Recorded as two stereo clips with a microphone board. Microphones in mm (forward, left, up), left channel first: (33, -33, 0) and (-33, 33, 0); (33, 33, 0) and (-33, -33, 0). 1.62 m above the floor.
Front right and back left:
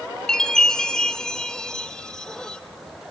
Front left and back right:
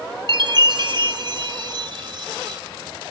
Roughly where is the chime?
Behind right.